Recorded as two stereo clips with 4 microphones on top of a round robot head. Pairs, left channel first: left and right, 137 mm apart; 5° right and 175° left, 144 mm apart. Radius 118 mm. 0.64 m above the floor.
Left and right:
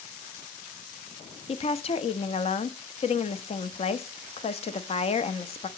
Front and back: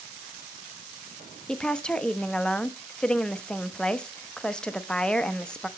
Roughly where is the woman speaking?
Left.